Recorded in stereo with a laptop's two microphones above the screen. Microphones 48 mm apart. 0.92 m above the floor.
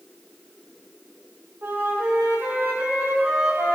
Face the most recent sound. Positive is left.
turn(degrees=-65)  # may be behind; listen again after turning